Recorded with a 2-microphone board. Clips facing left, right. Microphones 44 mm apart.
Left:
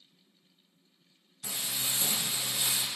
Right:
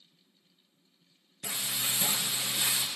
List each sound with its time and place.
1.4 s frying: 85° right, 0.8 m